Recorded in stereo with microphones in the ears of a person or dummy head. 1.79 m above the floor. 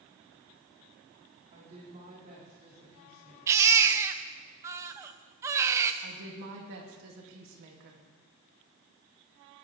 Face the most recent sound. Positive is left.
turn(degrees=-70)  # may be behind; listen again after turning